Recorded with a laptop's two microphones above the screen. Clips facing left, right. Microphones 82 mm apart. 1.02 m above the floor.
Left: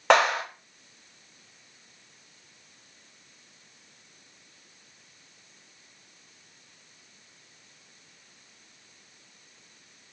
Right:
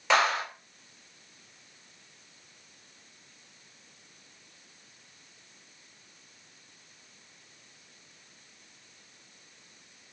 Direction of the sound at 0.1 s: 50° left (ahead or behind).